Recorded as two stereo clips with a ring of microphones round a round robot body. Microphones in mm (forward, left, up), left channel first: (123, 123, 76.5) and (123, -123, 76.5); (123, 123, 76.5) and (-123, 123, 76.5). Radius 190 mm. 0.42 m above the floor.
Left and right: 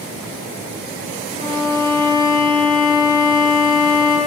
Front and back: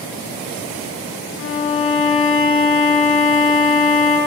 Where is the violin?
30° left, 8 m.